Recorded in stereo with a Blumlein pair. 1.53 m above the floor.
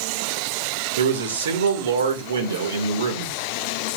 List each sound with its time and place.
1.0 s a man speaking: 60° right, 2 m